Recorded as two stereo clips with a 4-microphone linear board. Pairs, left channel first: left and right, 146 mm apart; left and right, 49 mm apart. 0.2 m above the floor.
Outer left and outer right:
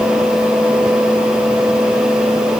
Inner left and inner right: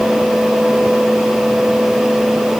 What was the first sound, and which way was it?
Only background noise.